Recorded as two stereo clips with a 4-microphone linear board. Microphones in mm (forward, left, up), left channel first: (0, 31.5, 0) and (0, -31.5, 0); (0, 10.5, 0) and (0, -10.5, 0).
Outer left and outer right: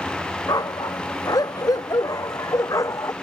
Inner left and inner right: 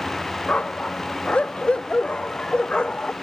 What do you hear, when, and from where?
0.5 s a dog barking: 85° left; by 3.1 s 55° left (ahead or behind)